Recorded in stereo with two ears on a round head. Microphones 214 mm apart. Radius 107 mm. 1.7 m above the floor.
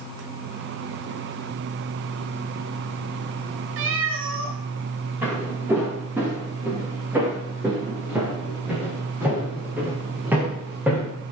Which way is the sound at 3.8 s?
55° right (ahead or behind).